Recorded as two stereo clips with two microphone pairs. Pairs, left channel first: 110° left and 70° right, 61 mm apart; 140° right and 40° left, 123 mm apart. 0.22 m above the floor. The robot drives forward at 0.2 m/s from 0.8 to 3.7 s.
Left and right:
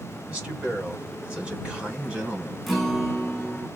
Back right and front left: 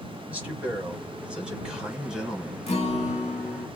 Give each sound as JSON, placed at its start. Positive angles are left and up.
{"t": 0.3, "sound": "a man speaking", "azimuth_deg": -30, "distance_m": 1.7}
{"t": 2.7, "sound": "a guitar", "azimuth_deg": -160, "distance_m": 0.8}